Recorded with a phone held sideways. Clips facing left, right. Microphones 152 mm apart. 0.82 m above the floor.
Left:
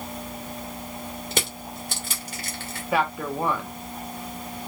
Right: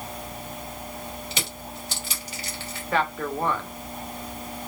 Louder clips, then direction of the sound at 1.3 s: Left 4 dB; 50° left (ahead or behind).